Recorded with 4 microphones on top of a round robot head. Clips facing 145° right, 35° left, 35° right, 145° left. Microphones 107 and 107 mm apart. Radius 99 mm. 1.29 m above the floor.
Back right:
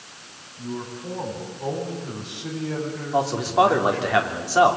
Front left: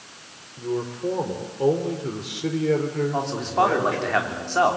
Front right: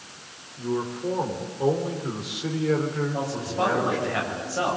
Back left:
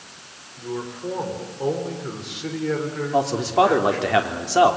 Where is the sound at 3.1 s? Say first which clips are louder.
Back right 7 dB, back left 8 dB; 135° left, 3.5 m.